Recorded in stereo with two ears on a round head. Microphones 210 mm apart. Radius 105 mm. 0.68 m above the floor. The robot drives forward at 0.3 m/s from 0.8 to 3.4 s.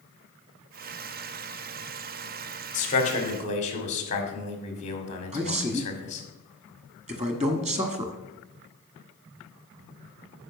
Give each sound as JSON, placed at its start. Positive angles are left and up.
{"t": 2.7, "sound": "a man speaking", "side_deg": 35, "distance_m": 1.9}
{"t": 5.3, "sound": "a man speaking", "side_deg": -30, "distance_m": 1.3}